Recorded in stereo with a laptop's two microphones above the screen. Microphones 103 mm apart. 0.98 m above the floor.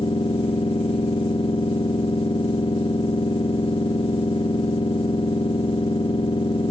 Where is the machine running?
60° left (ahead or behind), 1.3 m.